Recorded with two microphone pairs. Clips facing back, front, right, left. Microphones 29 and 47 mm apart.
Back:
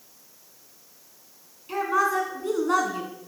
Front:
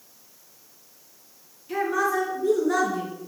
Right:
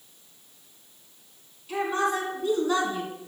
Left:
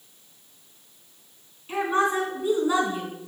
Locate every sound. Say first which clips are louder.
1.7 s a woman speaking: back 1 dB, left 3 dB; 150° left, 2.5 m; by 3.1 s 170° left, 2.5 m